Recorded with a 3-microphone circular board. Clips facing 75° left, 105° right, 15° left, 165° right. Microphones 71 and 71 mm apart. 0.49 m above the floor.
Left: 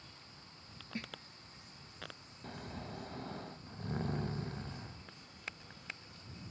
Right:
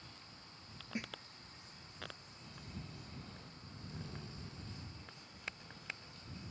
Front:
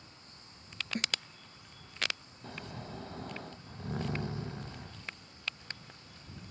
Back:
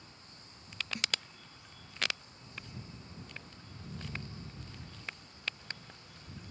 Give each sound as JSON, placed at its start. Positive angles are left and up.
{"t": 0.9, "sound": "a snare drum", "azimuth_deg": -30}
{"t": 2.4, "sound": "snoring", "azimuth_deg": 40}